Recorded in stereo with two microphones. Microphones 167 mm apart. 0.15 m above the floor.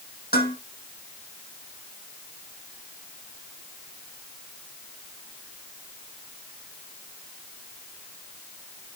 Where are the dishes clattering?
70° left (ahead or behind), 4.5 m.